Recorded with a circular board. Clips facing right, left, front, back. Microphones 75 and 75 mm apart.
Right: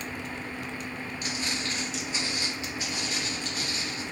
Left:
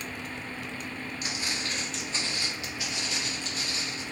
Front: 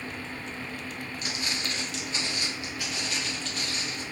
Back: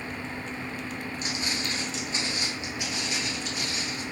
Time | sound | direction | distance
1.2 | footsteps | 145° left | 1.6 m